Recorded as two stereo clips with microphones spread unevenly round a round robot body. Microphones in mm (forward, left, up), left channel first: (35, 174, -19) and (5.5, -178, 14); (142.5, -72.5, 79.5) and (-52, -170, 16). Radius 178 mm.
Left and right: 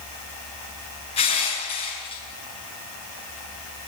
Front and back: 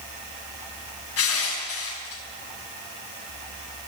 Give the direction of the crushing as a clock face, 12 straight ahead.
12 o'clock.